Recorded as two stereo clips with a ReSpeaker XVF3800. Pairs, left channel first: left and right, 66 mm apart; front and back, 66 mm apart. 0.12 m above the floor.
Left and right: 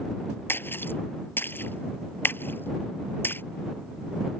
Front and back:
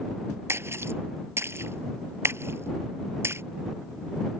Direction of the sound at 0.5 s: 140° left.